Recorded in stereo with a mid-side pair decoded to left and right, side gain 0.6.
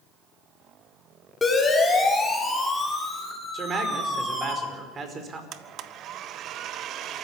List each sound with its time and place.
1.4 s a siren: 15° left, 6 m; by 4.5 s 10° right, 6.5 m
3.5 s a man speaking: 40° right, 5 m
5.5 s a blender: 55° right, 1.2 m